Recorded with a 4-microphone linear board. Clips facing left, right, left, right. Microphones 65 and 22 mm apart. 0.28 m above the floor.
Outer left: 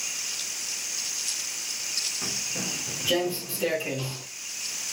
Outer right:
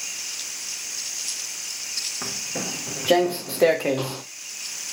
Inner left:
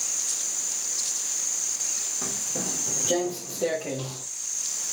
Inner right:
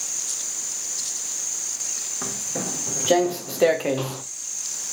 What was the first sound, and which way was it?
Footsteps, 45° right (ahead or behind).